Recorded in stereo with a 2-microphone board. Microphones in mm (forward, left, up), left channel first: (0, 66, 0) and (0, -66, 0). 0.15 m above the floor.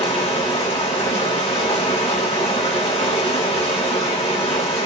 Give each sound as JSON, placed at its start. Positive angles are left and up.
{"t": 0.0, "sound": "running water", "side_deg": 50, "distance_m": 1.4}